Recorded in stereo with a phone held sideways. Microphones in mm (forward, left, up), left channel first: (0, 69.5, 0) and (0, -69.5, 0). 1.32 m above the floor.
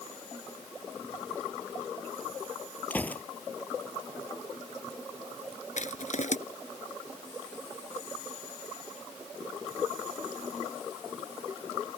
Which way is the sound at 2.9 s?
10° left (ahead or behind).